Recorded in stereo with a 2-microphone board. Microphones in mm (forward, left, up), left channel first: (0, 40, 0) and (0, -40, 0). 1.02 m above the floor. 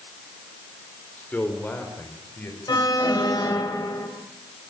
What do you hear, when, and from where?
1.2 s a man speaking: 20° left (ahead or behind), 4 m; by 3.7 s 25° left (ahead or behind), 7.5 m
2.7 s an alarm: 60° left (ahead or behind), 4.5 m